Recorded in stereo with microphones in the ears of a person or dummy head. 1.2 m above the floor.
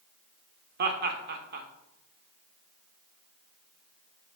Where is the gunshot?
I don't hear a gunshot.